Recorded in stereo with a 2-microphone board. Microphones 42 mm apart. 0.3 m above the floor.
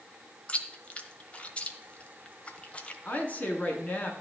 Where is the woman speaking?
35° left (ahead or behind), 3 m.